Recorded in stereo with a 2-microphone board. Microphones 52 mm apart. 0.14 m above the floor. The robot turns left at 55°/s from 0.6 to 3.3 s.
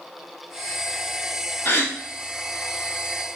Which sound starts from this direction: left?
A gasp, at 1.6 s.